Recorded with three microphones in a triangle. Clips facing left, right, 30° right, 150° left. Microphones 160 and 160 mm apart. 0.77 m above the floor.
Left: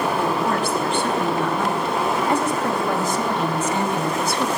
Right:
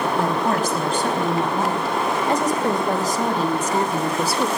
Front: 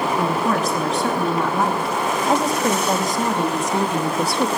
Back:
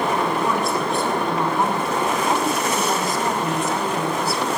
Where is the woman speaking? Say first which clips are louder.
Right 1 dB, front 1 dB; 40° right, 5.5 m; by 4.5 s 30° right, 2.5 m.